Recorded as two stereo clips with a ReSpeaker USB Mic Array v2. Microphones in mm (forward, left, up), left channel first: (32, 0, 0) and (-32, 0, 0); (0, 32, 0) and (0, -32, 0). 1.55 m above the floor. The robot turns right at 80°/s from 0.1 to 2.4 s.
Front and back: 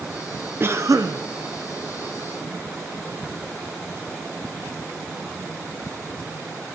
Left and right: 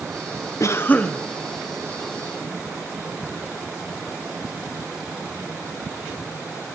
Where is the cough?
125° left, 1.0 m; by 1.2 s 175° left, 1.0 m.